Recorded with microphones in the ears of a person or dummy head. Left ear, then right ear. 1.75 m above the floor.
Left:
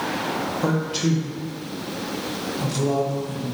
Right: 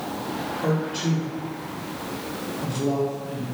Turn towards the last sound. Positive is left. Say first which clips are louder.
# even
turn(degrees=45)  # may be behind; listen again after turning